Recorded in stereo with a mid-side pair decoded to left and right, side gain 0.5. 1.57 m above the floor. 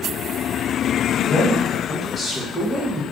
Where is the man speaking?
45° left, 1.6 m; by 3.0 s straight ahead, 1.3 m.